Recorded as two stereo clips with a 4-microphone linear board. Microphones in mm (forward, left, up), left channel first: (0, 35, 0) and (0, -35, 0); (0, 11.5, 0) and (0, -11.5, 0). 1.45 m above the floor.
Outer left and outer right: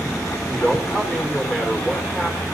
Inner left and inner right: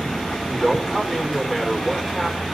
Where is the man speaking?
10° right (ahead or behind), 5 m.